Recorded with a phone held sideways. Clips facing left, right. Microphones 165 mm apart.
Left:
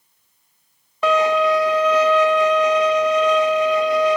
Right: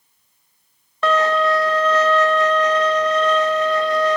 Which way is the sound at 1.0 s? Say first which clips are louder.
Left 1 dB; 10° left (ahead or behind).